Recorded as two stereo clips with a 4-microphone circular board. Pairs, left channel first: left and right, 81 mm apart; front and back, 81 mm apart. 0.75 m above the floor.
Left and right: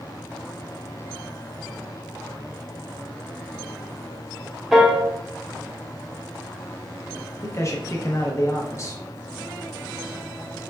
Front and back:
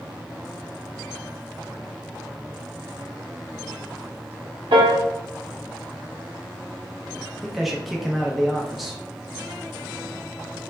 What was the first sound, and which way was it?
A piano, 175° right.